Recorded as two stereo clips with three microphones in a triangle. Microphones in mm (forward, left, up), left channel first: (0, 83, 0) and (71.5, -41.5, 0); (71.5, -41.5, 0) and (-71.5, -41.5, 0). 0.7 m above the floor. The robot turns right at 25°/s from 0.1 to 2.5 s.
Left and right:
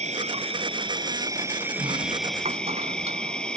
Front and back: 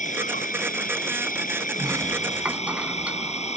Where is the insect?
25° right; by 3.6 s 35° left.